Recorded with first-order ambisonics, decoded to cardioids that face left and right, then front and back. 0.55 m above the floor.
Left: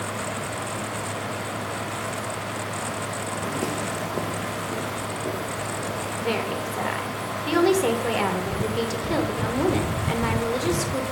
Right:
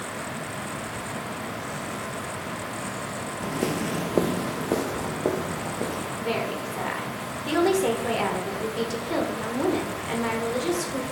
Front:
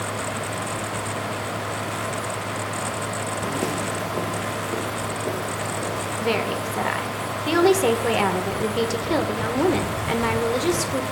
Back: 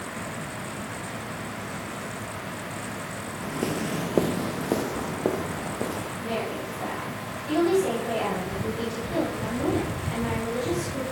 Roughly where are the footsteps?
Ahead.